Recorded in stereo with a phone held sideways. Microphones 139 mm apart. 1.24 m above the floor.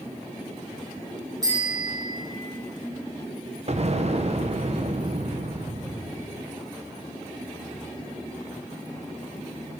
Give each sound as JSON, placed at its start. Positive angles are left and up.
{"t": 1.4, "sound": "a bicycle bell", "side_deg": -30, "distance_m": 4.5}
{"t": 3.7, "sound": "an explosion", "side_deg": -50, "distance_m": 0.8}